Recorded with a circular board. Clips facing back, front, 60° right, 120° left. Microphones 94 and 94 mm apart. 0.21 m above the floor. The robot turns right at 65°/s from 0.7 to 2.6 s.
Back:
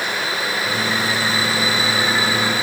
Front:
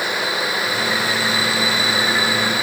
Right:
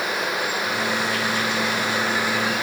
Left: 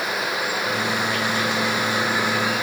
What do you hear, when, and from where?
Only background noise.